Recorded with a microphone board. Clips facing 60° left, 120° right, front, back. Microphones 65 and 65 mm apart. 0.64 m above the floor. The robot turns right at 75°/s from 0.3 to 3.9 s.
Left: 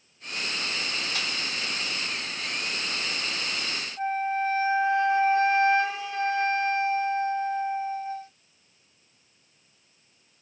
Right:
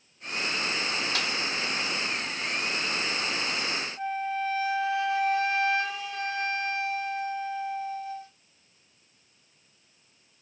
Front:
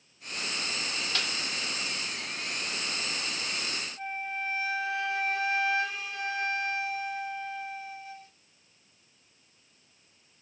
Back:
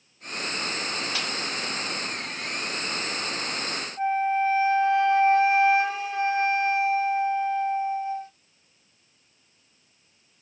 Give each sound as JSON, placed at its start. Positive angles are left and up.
{"t": 1.1, "sound": "a snare drum", "azimuth_deg": -100, "distance_m": 1.1}
{"t": 4.0, "sound": "a flute", "azimuth_deg": 120, "distance_m": 0.7}